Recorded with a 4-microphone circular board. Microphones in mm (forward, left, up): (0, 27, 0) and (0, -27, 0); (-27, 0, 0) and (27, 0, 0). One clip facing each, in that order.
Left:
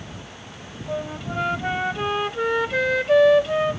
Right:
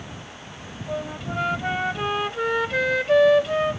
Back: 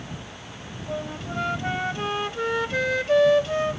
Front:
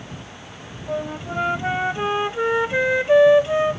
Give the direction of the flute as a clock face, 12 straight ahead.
12 o'clock.